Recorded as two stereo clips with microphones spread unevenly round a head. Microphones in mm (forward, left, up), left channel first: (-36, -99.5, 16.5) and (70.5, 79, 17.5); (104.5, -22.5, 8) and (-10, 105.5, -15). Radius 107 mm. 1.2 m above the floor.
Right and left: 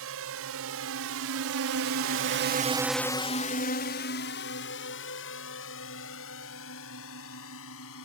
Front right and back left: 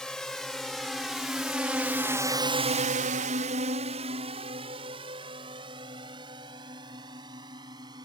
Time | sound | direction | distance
0.0 | a drone | 40° left | ?